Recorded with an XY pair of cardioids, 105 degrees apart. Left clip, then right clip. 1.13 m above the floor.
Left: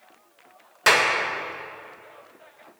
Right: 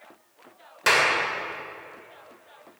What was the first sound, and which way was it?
A clap, 20° left.